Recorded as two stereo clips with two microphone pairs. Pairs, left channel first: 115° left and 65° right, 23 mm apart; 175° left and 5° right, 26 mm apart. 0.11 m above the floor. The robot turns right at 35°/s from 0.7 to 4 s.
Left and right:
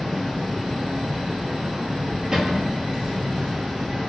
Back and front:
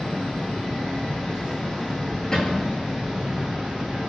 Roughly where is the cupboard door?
Behind right.